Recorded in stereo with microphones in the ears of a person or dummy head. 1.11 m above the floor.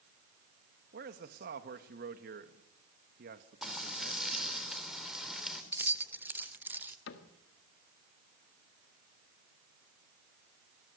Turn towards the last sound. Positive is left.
turn(degrees=75)  # may be behind; listen again after turning